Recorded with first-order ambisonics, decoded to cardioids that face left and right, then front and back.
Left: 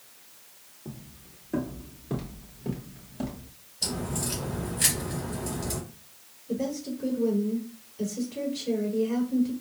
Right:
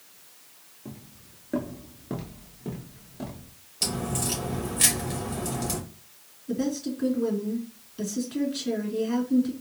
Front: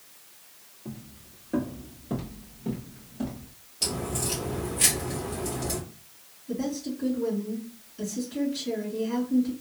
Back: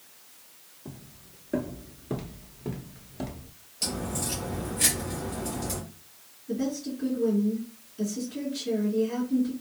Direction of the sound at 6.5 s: 90° right.